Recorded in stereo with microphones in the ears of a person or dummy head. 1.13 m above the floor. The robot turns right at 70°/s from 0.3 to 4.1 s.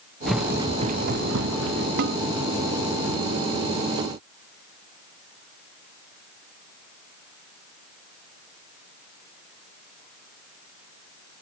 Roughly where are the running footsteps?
Centre.